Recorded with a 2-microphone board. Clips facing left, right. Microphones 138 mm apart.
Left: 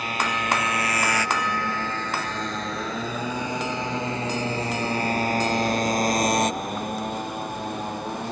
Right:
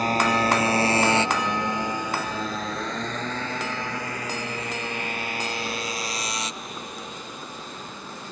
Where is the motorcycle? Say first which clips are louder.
Right 6 dB; 40° right (ahead or behind); by 8.3 s 65° left (ahead or behind).